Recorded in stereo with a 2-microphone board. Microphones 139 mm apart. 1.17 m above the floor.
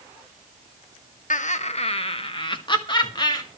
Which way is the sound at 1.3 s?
65° left (ahead or behind).